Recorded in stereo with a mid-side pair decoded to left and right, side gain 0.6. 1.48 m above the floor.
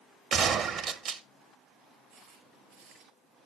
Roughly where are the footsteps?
Right.